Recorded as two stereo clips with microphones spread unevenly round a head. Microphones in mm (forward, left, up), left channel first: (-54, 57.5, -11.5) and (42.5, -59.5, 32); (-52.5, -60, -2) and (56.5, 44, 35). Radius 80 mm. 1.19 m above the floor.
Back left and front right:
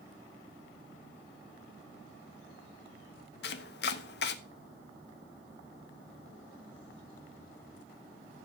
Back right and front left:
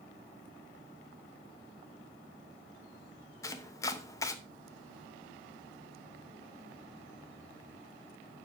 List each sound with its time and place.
3.4 s chopping: 150° left, 0.7 m